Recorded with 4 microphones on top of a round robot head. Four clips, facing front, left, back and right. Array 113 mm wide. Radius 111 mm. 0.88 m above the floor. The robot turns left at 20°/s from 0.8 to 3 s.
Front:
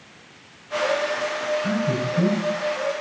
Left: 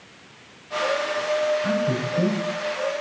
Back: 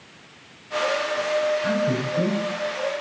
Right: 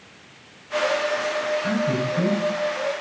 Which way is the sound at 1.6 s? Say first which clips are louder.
Even, back 1 dB; 150° left.